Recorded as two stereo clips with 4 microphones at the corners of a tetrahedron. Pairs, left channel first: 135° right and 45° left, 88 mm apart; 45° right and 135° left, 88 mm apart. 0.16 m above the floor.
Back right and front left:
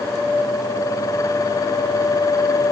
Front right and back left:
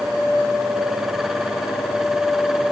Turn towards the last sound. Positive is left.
No sound to turn to.